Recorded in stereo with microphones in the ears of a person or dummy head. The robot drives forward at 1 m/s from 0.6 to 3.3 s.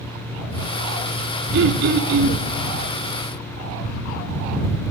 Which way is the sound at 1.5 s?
65° right (ahead or behind).